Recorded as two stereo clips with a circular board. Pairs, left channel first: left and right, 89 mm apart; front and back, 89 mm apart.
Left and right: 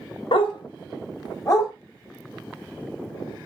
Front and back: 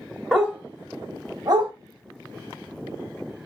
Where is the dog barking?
95° left, 0.9 m; by 1.7 s 145° left, 1.3 m.